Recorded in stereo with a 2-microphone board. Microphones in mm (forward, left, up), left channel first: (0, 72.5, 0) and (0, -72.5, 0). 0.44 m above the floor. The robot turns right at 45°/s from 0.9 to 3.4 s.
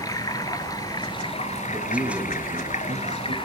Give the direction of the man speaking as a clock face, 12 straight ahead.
6 o'clock.